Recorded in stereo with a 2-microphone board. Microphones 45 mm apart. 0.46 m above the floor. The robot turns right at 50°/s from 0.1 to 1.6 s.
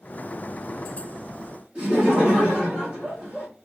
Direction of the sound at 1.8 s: 20° right (ahead or behind).